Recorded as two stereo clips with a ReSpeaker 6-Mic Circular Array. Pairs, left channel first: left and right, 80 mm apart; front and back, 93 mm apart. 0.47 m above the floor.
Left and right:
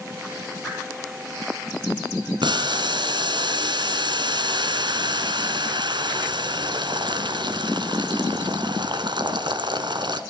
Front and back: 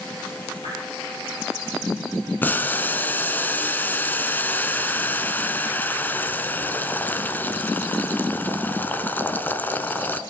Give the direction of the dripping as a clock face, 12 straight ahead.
12 o'clock.